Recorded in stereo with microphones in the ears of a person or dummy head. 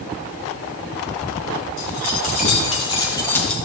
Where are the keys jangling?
55° left (ahead or behind), 2 m; by 3.5 s 5° left (ahead or behind), 1.1 m.